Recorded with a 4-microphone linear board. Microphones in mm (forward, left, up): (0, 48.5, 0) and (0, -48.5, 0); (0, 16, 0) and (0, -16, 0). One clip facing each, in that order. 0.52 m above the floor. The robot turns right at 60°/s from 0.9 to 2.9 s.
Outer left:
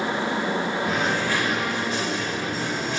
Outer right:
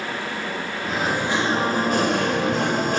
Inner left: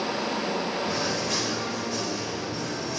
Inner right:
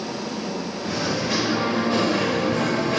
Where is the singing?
Straight behind, 2.5 m; by 3.0 s 60° right, 2.5 m.